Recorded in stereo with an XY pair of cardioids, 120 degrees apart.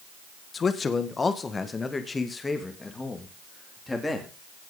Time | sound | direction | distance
0.5 | a man speaking | 35° left | 1.5 m